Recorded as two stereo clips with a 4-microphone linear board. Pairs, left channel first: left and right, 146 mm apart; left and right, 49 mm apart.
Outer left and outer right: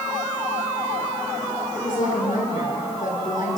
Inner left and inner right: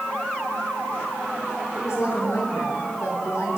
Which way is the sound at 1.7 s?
70° left (ahead or behind).